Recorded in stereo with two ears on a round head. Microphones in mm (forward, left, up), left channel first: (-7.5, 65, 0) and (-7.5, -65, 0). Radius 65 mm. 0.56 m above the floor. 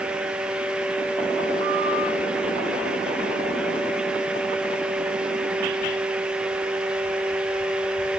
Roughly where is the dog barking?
No dog barking in this recording.